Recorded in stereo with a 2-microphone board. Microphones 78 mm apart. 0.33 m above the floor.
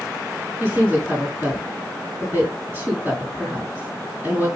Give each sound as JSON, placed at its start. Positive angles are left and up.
{"t": 0.6, "sound": "a woman speaking", "side_deg": -25, "distance_m": 4.5}